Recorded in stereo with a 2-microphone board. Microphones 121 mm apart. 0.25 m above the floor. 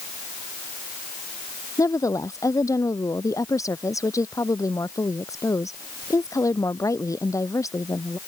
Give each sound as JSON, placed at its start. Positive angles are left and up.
{"t": 1.8, "sound": "a woman speaking", "side_deg": 25}